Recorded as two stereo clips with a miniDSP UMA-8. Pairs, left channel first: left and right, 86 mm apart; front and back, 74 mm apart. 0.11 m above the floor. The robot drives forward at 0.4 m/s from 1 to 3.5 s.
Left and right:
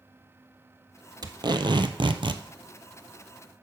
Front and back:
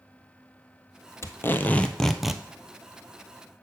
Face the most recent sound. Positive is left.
turn(degrees=-135)